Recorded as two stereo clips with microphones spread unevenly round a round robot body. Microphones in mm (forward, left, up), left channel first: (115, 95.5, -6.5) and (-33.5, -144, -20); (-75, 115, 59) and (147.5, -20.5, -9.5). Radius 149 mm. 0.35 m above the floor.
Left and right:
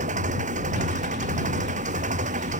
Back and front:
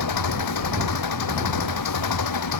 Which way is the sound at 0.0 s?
170° left.